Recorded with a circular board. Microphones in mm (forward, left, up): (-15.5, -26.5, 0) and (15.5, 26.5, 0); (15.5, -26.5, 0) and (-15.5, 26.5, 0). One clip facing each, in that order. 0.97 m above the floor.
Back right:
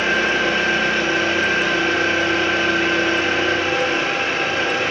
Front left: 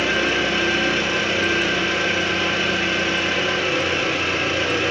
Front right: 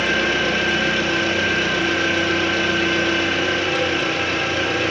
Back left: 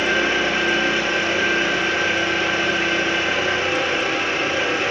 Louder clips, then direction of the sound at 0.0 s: Back right 2 dB, even; 175° right.